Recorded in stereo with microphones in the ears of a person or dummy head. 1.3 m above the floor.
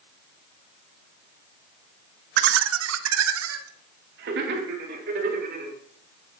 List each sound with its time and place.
2.4 s laughter: 50° right (ahead or behind), 0.8 m; by 5.7 s 55° right (ahead or behind), 3 m